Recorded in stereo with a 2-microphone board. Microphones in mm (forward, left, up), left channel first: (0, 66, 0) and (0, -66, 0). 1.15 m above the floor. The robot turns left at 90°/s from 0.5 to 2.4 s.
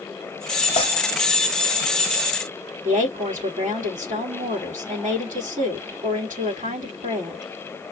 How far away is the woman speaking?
About 2.5 m.